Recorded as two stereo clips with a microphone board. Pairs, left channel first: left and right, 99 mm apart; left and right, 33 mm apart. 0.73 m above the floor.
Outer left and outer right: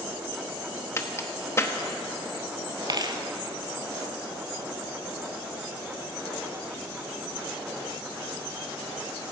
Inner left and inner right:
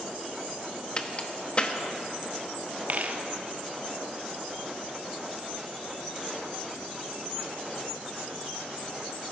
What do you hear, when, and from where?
1.0 s a crack: 25° left (ahead or behind), 0.9 m
2.9 s a dropped coin: 45° right (ahead or behind), 1.0 m